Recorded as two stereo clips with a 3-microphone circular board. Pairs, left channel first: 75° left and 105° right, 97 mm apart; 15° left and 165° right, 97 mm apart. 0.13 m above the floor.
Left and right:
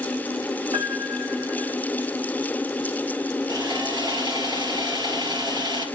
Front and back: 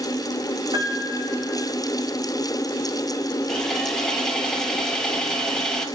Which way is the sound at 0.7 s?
145° right.